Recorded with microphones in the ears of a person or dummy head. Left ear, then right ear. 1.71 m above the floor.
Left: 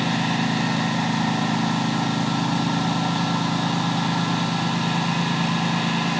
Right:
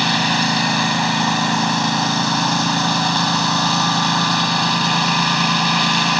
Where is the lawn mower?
55° right (ahead or behind).